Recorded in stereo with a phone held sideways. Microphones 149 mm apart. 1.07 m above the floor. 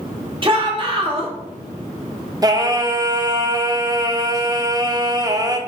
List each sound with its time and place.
0.4 s a shout: 35° right (ahead or behind), 1.7 m
2.4 s singing: 25° right (ahead or behind), 0.6 m